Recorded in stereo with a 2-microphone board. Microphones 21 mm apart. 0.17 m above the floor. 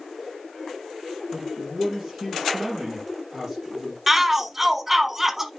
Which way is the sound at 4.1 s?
10° right (ahead or behind).